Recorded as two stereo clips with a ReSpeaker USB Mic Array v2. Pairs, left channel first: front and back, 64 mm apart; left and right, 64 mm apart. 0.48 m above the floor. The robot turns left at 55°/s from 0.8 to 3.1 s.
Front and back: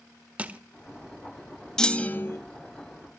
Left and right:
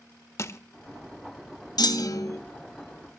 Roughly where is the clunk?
Left.